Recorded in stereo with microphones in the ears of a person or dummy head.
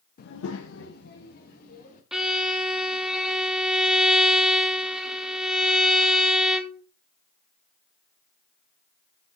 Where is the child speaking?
45° left (ahead or behind), 0.7 m.